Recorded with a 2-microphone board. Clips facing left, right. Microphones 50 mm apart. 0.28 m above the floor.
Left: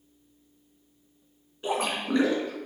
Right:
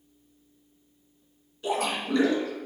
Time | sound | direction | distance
1.6 | a splash | 25° left (ahead or behind) | 2.5 m